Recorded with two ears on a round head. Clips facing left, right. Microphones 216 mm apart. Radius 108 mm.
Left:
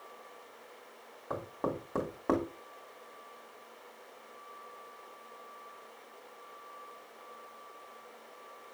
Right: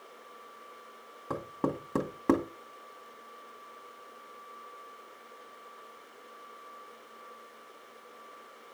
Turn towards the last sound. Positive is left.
turn(degrees=-45)  # may be behind; listen again after turning